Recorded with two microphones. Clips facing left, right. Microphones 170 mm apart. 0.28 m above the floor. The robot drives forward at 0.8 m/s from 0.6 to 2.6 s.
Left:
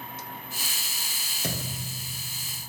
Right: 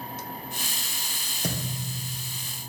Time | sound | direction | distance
1.4 | a thud | 15° right (ahead or behind) | 2 m